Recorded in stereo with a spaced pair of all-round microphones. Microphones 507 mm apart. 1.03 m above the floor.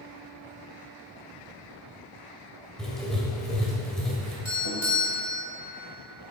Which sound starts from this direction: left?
A doorbell, at 4.5 s.